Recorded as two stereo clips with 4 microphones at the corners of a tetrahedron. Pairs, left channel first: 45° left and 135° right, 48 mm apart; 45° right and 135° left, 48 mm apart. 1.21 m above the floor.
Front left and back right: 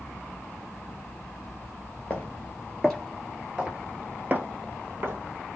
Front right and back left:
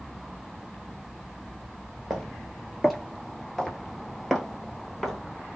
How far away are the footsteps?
About 1.3 m.